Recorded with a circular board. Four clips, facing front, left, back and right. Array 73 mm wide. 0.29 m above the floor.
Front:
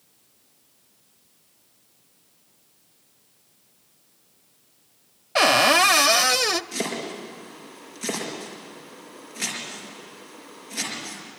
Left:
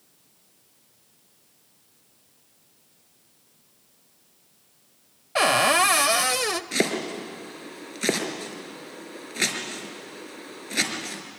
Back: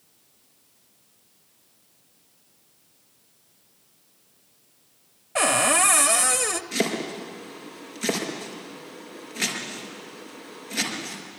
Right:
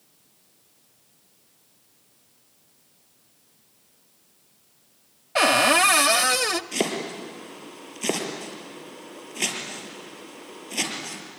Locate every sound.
5.3 s a cupboard door: 5° right, 0.6 m
6.7 s chopping: 110° left, 4.5 m